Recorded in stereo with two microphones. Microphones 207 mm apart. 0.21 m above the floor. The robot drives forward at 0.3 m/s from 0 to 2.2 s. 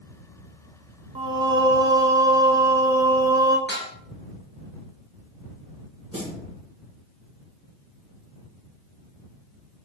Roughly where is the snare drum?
Right.